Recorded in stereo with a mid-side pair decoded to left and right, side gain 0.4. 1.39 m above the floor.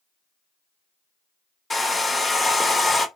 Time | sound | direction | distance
1.7 | a hair dryer | 35° left | 1.0 m